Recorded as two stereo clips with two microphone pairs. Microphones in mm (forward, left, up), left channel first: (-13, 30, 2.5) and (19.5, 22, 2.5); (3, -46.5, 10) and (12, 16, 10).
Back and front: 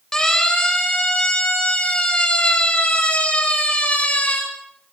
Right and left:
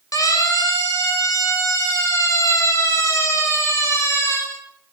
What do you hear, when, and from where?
0.1 s a siren: 120° right, 7.5 m; by 4.4 s 145° right, 8.5 m